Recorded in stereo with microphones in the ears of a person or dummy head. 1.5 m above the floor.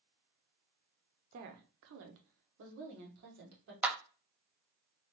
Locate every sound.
1.3 s a woman speaking: 40° right (ahead or behind), 0.6 m; by 3.7 s 60° right (ahead or behind), 1.5 m
3.8 s a clap: 10° right (ahead or behind), 0.5 m